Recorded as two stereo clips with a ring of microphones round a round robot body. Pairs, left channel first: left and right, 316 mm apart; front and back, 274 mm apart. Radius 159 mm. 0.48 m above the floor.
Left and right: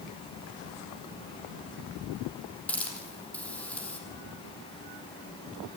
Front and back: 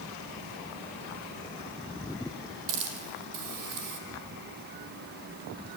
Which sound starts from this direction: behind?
A hiss, at 2.7 s.